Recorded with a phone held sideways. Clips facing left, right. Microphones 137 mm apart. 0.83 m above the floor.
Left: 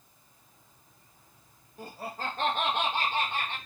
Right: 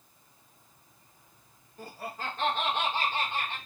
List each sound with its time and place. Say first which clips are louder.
1.8 s laughter: left 1 dB; 10° left (ahead or behind), 0.5 m; by 3.6 s 55° left (ahead or behind), 1.3 m